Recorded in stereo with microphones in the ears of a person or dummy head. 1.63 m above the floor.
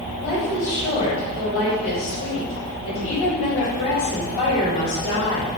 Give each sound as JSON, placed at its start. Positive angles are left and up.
{"t": 0.2, "sound": "a woman speaking", "side_deg": 55, "distance_m": 3.5}